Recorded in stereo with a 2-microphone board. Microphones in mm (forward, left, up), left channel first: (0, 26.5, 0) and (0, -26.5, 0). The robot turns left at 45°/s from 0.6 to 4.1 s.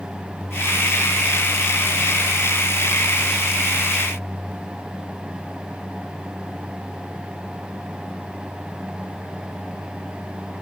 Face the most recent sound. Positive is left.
No sound to turn to.